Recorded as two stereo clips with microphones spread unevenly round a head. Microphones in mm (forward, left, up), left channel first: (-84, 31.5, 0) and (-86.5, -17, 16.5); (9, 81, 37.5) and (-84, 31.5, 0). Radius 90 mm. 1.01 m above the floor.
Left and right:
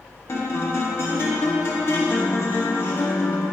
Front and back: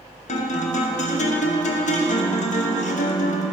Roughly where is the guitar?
Ahead left.